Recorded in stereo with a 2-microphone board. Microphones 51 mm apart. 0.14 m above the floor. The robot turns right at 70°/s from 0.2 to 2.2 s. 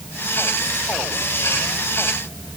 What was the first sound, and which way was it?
Only background noise.